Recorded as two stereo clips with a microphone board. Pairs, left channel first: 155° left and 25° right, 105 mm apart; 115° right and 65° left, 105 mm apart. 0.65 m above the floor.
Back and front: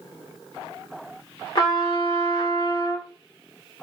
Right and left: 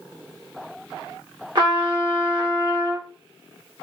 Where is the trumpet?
110° left, 1.5 m.